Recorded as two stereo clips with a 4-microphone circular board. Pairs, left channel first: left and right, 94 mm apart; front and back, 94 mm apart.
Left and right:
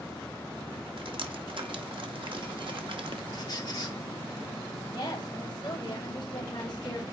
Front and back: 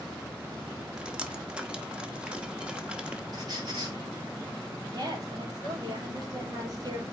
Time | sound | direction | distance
1.0 | dripping | 100° right | 1.0 m
3.3 | a squeak | 135° left | 3 m
4.9 | a woman speaking | 135° left | 3 m